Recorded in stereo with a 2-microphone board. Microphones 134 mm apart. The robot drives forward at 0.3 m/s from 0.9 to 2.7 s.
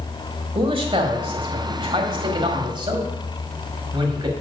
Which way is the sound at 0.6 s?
40° right (ahead or behind).